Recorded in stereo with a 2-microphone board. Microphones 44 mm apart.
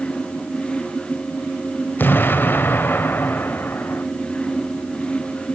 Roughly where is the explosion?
Left.